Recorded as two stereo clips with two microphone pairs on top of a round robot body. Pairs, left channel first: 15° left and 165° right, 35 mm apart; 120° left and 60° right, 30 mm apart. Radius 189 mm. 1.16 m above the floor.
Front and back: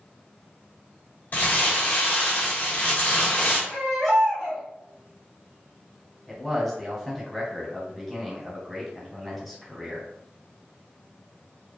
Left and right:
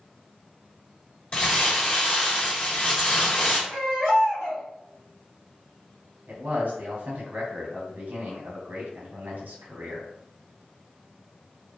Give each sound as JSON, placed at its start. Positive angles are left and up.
{"t": 1.3, "sound": "crumpling", "azimuth_deg": 65, "distance_m": 1.2}
{"t": 3.7, "sound": "a baby crying", "azimuth_deg": -85, "distance_m": 1.6}
{"t": 6.3, "sound": "a man speaking", "azimuth_deg": -75, "distance_m": 1.3}